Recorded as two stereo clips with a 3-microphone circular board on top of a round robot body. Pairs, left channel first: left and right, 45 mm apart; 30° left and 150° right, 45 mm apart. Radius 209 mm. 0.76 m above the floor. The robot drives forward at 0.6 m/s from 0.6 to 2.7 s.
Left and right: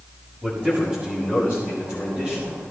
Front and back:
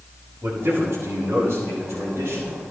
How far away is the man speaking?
About 7.5 m.